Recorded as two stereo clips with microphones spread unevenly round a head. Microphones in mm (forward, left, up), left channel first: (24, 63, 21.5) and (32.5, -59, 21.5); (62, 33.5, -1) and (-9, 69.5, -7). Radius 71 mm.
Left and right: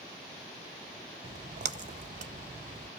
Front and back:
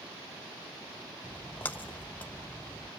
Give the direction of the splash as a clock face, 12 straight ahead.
3 o'clock.